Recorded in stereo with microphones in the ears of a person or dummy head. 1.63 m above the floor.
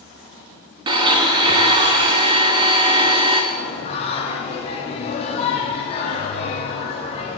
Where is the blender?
20° right (ahead or behind), 0.6 m.